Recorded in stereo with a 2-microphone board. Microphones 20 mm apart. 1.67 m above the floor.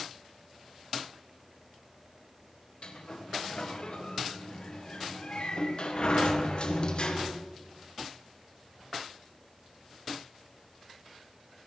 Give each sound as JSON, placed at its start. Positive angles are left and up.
{"t": 2.8, "sound": "a sliding door", "side_deg": 55, "distance_m": 1.6}